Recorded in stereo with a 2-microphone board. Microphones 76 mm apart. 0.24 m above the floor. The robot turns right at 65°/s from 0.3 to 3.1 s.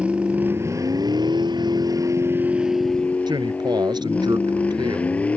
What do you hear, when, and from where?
0.0 s a vehicle: 165° right; by 5.4 s 20° left
3.3 s a man speaking: 70° right (ahead or behind)